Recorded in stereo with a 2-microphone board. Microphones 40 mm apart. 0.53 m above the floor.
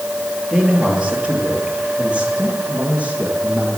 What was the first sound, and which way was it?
A man speaking, 25° right (ahead or behind).